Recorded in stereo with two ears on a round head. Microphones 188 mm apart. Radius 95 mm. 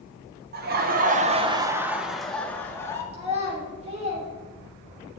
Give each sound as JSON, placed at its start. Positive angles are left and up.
{"t": 0.5, "sound": "laughter", "side_deg": -50, "distance_m": 0.9}
{"t": 3.1, "sound": "a child speaking", "side_deg": -35, "distance_m": 3.0}